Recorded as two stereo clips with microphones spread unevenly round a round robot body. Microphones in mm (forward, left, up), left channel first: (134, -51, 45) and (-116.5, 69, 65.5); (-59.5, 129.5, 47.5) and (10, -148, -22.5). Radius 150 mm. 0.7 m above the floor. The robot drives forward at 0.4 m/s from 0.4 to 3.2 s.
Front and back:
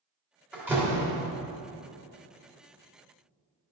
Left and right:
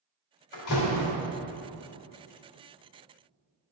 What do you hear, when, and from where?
0.5 s a door slam: 70° left, 1.5 m; by 1.2 s 80° left, 1.5 m